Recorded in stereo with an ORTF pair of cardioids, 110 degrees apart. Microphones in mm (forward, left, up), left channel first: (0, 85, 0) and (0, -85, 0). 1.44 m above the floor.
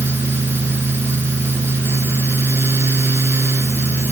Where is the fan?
15° right.